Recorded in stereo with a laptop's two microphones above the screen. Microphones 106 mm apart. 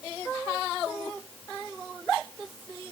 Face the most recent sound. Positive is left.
No sound to turn to.